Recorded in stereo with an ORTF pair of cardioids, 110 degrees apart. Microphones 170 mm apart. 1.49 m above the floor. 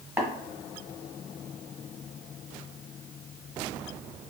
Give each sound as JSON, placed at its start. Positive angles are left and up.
{"t": 0.2, "sound": "tapping", "azimuth_deg": -10, "distance_m": 1.1}